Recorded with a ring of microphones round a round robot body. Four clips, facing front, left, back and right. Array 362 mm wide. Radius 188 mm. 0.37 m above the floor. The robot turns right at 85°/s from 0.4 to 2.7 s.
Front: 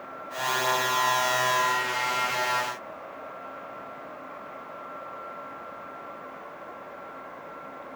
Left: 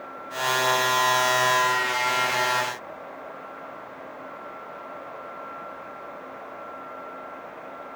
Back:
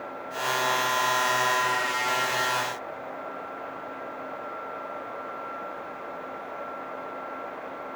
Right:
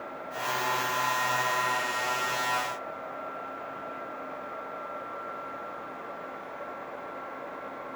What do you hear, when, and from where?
Only background noise.